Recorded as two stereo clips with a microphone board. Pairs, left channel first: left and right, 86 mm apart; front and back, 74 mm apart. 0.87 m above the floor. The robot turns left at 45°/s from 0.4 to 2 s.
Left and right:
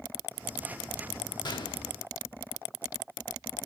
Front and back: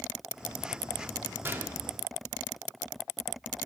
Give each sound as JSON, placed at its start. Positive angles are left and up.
{"t": 1.4, "sound": "a gunshot", "azimuth_deg": 125, "distance_m": 0.8}